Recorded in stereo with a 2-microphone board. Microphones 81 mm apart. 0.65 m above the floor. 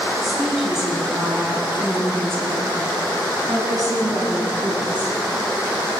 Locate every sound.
0.2 s a woman speaking: centre (ahead or behind), 6.5 m; by 5.2 s 65° right (ahead or behind), 7 m